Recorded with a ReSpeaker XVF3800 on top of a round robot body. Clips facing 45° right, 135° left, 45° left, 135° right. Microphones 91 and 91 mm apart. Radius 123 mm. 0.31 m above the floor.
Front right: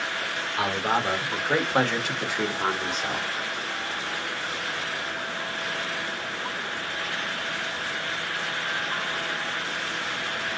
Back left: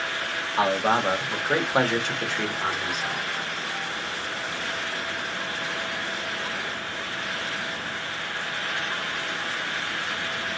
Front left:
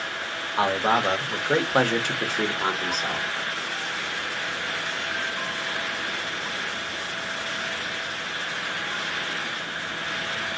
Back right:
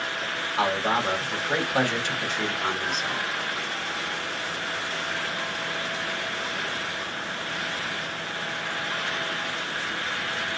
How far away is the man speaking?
About 1.4 m.